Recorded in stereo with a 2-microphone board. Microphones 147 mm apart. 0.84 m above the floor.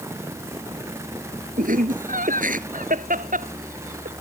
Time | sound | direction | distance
1.6 | laughter | 75° right (ahead or behind) | ?